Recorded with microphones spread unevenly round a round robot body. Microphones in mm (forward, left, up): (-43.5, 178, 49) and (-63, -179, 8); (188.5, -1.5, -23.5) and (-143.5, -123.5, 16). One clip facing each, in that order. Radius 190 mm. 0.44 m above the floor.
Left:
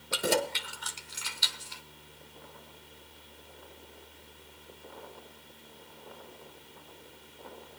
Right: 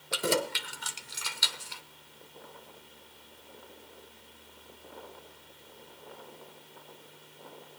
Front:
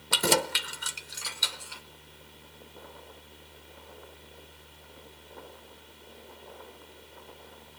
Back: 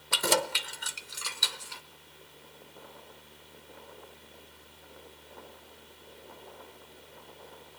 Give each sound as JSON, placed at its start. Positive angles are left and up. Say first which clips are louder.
{"t": 0.1, "sound": "keys jangling", "louder": "even, front 2 dB", "azimuth_deg": -5, "distance_m": 0.9}